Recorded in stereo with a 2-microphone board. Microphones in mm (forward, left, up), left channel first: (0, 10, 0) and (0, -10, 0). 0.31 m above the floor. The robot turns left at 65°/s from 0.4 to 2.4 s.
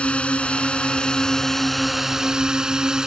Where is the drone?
95° left; by 3.1 s 35° right.